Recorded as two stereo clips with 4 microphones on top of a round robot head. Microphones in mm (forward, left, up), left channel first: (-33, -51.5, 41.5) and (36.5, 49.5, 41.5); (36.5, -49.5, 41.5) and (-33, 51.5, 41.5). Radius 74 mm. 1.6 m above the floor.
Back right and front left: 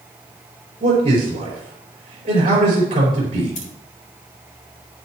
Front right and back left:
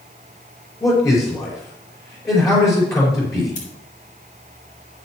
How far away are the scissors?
About 4 m.